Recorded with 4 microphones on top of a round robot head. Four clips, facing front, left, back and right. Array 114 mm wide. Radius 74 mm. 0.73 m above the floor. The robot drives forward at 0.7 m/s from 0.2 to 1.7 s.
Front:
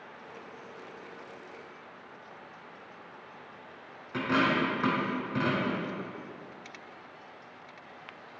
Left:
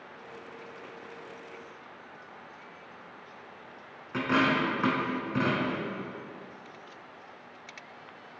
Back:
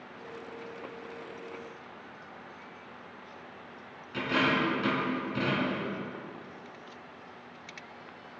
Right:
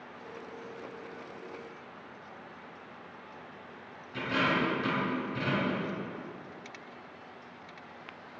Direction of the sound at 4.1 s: 60° left.